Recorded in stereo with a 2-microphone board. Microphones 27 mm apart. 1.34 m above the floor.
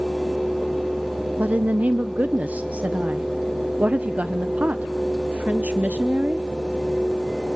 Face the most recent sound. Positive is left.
turn(degrees=-60)  # may be behind; listen again after turning